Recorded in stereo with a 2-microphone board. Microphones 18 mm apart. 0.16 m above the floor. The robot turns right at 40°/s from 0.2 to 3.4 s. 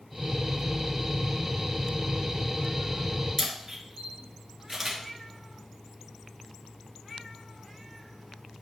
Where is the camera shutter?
20° right (ahead or behind), 2.5 m.